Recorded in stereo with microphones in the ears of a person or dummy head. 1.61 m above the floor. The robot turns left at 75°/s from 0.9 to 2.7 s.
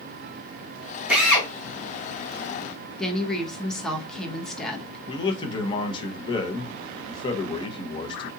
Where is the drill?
5° right (ahead or behind), 1.4 m; by 1.5 s 25° left (ahead or behind), 1.4 m.